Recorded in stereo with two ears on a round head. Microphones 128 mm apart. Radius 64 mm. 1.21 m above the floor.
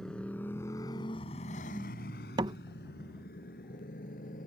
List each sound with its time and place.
0.0 s a motorcycle: 5° left (ahead or behind); by 4.5 s 60° left (ahead or behind)
2.4 s a door slam: 30° right (ahead or behind)